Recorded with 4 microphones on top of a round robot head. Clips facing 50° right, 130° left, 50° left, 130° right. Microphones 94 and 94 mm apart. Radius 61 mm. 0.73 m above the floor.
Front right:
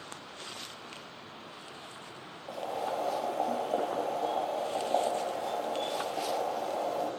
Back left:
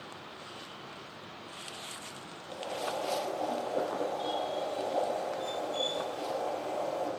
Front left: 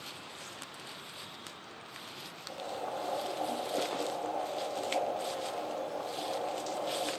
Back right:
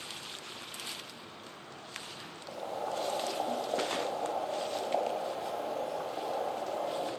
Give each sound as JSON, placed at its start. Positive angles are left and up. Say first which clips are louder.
{"t": 2.5, "sound": "boiling", "louder": "front right 2 dB, back right 2 dB", "azimuth_deg": -80, "distance_m": 2.0}